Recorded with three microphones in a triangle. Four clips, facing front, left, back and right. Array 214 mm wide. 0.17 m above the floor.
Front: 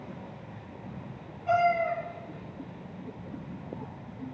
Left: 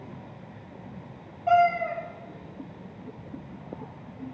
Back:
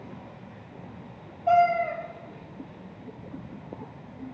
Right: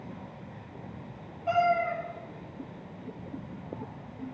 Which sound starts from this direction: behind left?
A cat meowing, at 1.5 s.